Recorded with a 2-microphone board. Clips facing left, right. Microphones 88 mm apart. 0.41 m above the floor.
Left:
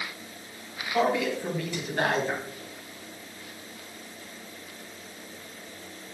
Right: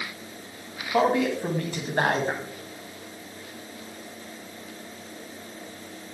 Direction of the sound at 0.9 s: 40° right (ahead or behind).